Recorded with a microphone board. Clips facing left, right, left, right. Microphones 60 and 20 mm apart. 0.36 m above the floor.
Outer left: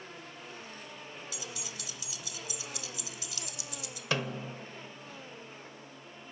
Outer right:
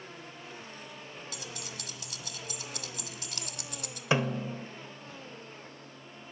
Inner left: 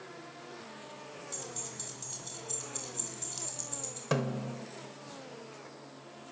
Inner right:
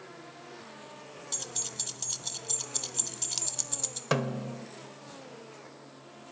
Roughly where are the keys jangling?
Right.